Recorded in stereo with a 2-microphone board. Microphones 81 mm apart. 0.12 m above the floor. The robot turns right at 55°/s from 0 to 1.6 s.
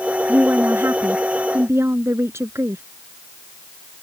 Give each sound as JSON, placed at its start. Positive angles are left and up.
{"t": 0.3, "sound": "a woman speaking", "azimuth_deg": -145}